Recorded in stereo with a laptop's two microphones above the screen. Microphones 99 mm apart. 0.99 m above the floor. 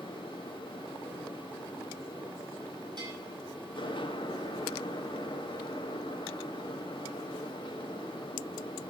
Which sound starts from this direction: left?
A fan, at 0.0 s.